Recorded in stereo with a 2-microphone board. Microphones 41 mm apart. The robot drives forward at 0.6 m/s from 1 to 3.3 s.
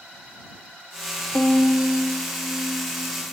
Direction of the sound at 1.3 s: 55° left (ahead or behind).